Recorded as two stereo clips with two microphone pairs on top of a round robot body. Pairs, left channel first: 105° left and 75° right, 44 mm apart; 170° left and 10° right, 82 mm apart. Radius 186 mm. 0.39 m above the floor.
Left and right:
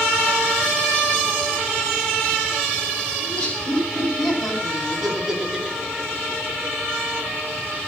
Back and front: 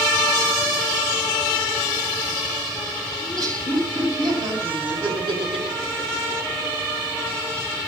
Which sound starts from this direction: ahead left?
Laughter, at 3.2 s.